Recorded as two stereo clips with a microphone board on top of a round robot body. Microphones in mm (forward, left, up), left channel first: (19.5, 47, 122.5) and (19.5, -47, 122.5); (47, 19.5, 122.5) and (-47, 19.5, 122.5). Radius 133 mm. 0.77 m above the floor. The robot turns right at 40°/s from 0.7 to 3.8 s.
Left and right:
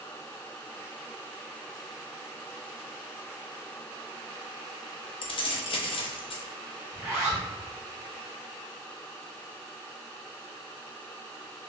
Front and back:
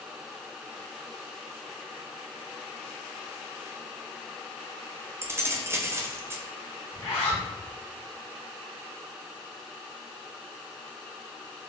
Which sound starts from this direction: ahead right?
A zipper, at 6.9 s.